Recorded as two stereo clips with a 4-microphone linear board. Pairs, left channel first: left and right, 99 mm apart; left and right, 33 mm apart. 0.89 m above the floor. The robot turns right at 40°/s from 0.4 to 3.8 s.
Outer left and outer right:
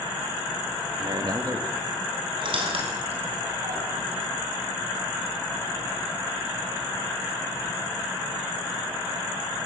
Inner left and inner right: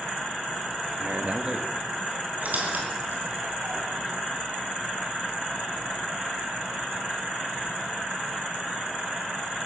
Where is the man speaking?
55° right (ahead or behind), 1.2 m; by 1.7 s 30° right (ahead or behind), 1.2 m.